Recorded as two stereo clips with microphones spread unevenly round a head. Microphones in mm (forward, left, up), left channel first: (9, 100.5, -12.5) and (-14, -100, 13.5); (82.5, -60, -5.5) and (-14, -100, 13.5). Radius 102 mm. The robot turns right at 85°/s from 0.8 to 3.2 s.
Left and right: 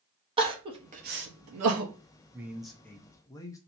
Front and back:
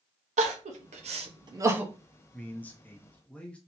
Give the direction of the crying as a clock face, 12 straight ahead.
5 o'clock.